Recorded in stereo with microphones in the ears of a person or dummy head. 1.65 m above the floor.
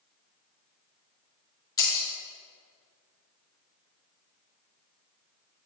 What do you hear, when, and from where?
1.8 s breaking glass: 20° left (ahead or behind), 2.0 m